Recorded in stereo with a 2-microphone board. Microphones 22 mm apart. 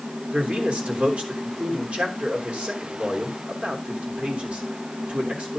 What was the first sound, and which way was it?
A man speaking, 70° right (ahead or behind).